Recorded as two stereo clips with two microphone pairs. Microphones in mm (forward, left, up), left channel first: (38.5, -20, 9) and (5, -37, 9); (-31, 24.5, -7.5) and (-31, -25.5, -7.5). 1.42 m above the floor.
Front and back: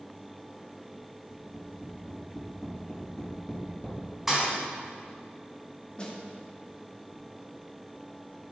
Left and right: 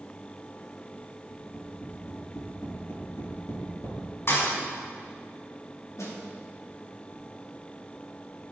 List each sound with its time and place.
1.3 s tapping: 100° left, 5 m
4.3 s a thud: 125° left, 3.5 m
6.0 s a snare drum: 90° left, 2 m